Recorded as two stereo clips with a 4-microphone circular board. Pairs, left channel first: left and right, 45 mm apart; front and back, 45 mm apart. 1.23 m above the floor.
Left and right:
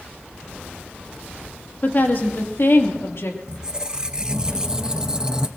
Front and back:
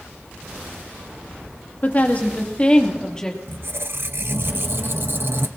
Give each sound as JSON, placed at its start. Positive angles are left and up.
{"t": 1.8, "sound": "a woman speaking", "azimuth_deg": 45, "distance_m": 1.9}
{"t": 3.5, "sound": "a squeak", "azimuth_deg": -160, "distance_m": 0.7}